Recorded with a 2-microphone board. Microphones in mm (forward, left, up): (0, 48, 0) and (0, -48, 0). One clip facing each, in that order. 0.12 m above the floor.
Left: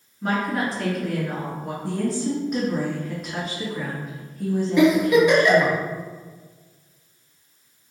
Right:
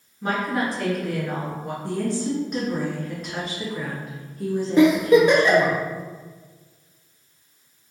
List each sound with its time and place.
0.2 s a woman speaking: centre (ahead or behind), 1.7 m
1.8 s a woman speaking: centre (ahead or behind), 1.2 m
4.8 s a giggle: 40° right (ahead or behind), 1.0 m